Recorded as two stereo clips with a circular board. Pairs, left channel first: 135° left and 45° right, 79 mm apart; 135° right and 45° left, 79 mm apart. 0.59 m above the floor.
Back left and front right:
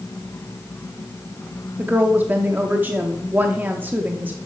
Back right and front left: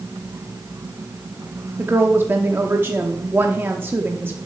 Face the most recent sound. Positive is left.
turn(degrees=5)